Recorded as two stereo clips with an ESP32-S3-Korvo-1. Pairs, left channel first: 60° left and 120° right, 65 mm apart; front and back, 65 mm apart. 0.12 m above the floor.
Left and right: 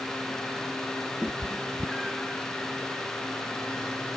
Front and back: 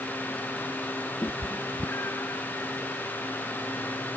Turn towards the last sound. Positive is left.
turn(degrees=-40)